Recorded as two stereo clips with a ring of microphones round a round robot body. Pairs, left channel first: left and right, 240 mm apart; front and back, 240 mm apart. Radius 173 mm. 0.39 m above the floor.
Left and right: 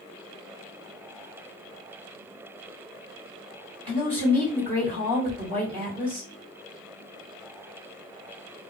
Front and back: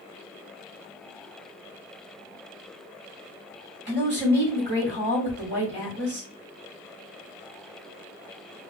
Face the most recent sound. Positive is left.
turn(degrees=170)